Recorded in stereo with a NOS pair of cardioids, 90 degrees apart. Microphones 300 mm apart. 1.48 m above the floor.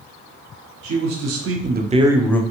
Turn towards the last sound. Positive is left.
turn(degrees=10)